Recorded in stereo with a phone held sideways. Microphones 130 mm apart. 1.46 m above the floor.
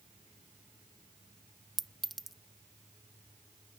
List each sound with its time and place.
1.8 s a clink: centre (ahead or behind)